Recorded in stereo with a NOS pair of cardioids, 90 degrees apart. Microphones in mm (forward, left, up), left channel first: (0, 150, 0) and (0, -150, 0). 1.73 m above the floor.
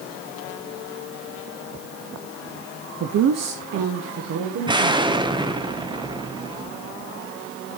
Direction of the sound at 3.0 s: 55° right.